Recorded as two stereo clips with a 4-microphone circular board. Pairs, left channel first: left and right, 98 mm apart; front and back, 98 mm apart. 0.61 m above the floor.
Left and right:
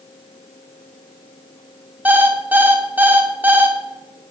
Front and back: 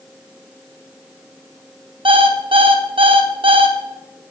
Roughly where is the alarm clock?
Behind.